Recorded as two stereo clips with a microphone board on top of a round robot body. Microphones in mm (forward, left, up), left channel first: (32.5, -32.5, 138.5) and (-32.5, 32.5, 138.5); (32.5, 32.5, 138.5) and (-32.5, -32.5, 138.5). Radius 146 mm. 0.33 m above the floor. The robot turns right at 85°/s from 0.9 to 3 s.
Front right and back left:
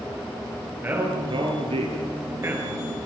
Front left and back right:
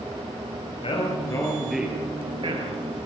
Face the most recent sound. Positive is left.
turn(degrees=-115)